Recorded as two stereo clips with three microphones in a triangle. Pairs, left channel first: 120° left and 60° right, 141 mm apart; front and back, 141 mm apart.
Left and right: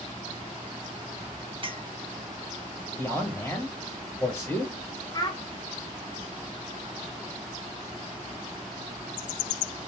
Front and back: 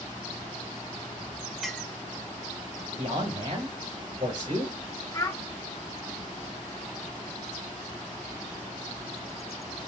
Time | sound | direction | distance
1.6 | a clink | 90° right | 0.7 m
3.0 | a man speaking | 170° right | 1.0 m
5.1 | a child speaking | 60° left | 0.8 m